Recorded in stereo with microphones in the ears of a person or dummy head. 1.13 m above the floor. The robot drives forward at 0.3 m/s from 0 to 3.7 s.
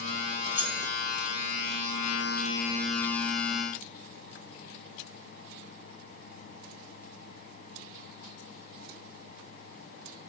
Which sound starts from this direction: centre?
Keys jangling, at 0.5 s.